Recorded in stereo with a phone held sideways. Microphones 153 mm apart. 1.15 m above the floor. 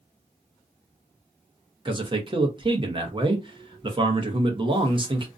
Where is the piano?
I don't hear a piano.